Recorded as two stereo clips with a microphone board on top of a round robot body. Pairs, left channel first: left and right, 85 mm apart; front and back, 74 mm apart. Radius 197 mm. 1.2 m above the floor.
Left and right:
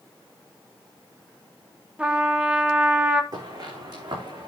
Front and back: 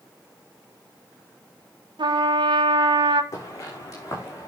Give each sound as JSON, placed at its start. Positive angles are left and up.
{"t": 2.0, "sound": "a trumpet", "azimuth_deg": -170, "distance_m": 1.0}
{"t": 3.3, "sound": "footsteps", "azimuth_deg": -45, "distance_m": 5.5}